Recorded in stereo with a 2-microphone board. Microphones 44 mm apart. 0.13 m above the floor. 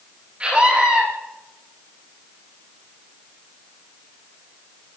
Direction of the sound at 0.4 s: 30° right (ahead or behind).